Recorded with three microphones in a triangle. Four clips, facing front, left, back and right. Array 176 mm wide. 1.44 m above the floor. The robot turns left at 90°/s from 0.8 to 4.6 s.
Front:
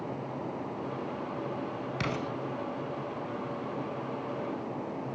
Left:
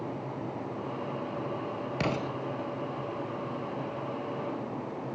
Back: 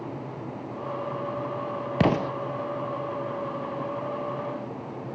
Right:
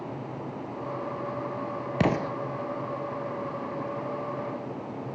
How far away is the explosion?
About 0.5 m.